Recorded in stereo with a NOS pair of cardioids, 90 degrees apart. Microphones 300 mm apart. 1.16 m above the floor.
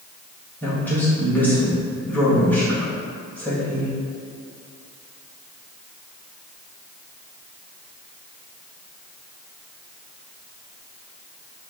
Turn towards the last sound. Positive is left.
turn(degrees=5)